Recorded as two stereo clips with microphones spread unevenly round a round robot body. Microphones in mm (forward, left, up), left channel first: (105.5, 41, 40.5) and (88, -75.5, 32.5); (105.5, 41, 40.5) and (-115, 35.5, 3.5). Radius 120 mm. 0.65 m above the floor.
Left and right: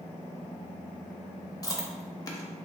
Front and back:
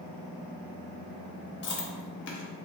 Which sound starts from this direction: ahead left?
Chewing, at 1.6 s.